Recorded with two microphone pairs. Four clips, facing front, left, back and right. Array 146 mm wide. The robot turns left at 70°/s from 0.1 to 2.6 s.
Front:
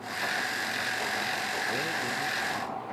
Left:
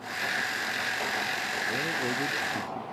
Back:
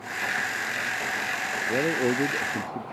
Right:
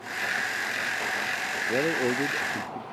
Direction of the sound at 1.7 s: 120° right.